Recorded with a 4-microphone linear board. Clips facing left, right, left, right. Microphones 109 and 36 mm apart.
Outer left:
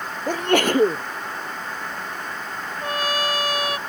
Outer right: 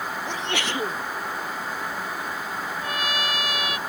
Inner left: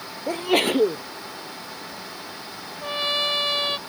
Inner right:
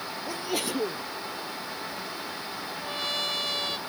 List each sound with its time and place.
0.3 s a sneeze: 50° left (ahead or behind)
2.8 s a trumpet: 40° left (ahead or behind)